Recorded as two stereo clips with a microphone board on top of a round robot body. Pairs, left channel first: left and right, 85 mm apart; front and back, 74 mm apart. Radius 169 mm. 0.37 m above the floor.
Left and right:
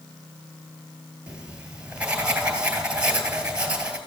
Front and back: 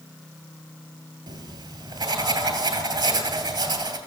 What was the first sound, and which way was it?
Writing, 165° right.